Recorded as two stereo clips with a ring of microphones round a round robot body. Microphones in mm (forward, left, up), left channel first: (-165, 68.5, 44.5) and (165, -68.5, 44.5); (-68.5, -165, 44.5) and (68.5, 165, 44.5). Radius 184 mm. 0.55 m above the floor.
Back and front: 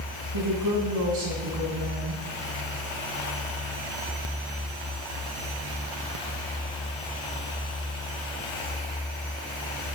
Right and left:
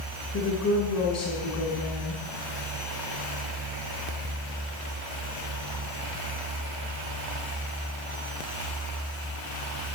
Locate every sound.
0.3 s a woman speaking: 65° right, 5 m